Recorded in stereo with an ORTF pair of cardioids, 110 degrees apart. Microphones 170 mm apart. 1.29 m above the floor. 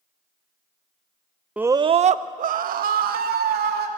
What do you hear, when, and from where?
1.6 s a scream: 5° right, 0.5 m; by 3.9 s 65° right, 2.5 m